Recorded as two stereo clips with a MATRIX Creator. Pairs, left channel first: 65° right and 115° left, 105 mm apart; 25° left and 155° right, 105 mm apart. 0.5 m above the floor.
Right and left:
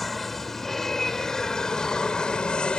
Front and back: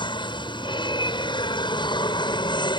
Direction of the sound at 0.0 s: 20° left.